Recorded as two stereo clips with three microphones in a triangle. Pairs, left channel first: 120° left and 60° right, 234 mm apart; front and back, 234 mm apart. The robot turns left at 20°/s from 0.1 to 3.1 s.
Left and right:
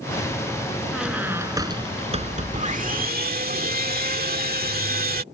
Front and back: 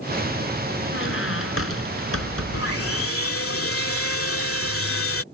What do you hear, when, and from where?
0.9 s a squeak: 30° left; by 3.2 s 15° right
2.5 s sawing: straight ahead; by 5.2 s 10° right